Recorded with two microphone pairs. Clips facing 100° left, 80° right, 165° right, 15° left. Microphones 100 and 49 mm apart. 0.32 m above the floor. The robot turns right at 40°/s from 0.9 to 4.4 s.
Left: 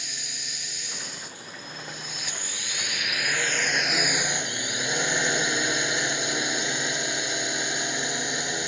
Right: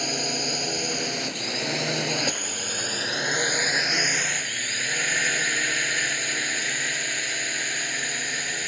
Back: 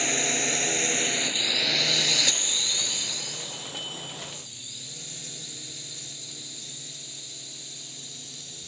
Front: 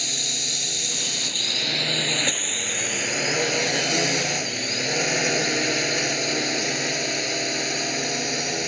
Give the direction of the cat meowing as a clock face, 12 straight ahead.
I don't hear a cat meowing.